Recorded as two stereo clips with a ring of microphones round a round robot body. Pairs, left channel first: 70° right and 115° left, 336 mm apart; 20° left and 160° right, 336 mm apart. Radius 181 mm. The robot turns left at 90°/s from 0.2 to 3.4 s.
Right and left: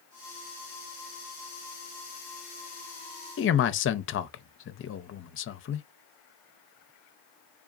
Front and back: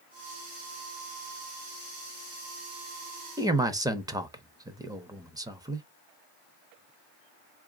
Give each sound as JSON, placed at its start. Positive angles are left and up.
{"t": 3.4, "sound": "a man speaking", "azimuth_deg": -80, "distance_m": 0.6}